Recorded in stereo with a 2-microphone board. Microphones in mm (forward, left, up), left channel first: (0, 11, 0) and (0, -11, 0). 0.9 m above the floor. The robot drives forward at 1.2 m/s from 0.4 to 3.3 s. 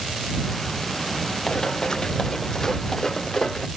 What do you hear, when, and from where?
1.5 s running footsteps: 30° left (ahead or behind); by 3.7 s 20° left (ahead or behind)